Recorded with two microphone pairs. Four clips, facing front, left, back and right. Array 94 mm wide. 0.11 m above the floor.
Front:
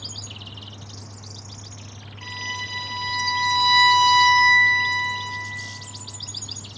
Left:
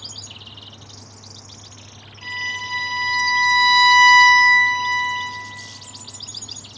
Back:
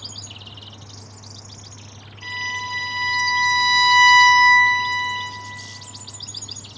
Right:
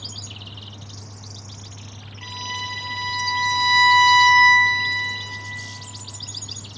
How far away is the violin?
About 0.7 m.